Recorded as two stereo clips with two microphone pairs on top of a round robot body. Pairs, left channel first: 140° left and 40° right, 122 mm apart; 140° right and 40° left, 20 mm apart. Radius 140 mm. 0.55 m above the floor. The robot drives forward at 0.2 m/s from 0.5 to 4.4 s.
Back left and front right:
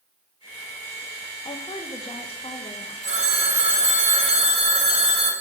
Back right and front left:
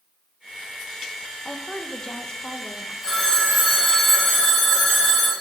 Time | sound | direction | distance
1.4 | a woman speaking | 155° left | 0.7 m
3.0 | a phone ringing | 65° right | 2.5 m